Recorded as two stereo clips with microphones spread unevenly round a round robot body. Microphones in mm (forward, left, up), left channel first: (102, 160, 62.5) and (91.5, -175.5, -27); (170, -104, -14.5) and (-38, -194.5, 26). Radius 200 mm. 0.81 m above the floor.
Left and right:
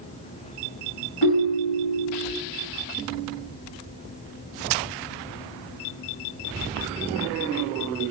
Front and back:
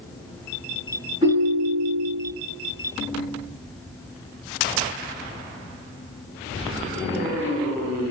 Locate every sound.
1.2 s a ringtone: 130° left, 2.5 m